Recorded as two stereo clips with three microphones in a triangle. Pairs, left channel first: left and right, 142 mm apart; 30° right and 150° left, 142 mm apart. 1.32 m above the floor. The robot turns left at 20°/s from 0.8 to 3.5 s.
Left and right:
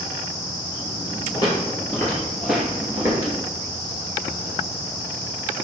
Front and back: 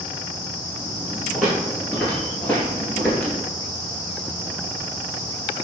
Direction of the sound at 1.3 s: 60° left.